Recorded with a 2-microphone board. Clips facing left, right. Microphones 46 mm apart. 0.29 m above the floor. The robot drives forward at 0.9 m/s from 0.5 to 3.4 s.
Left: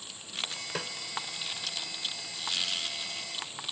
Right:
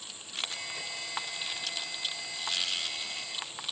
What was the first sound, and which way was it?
A snare drum, 80° left.